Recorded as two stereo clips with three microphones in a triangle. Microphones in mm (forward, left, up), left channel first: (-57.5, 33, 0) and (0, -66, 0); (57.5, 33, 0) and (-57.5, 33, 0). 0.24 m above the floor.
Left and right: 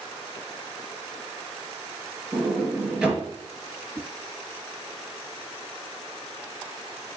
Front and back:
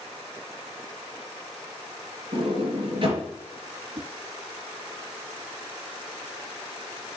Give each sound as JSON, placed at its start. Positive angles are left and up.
{"t": 2.3, "sound": "a sliding door", "azimuth_deg": -140, "distance_m": 3.5}
{"t": 4.0, "sound": "a whoosh", "azimuth_deg": -140, "distance_m": 1.1}